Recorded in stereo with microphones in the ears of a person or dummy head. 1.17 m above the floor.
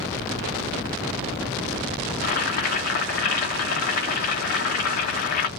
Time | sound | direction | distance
2.2 | boiling | 55° left (ahead or behind) | 1.0 m